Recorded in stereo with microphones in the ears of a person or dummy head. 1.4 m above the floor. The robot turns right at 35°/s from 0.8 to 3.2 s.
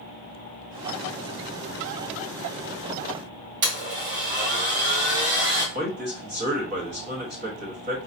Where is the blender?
45° right (ahead or behind), 2.5 m.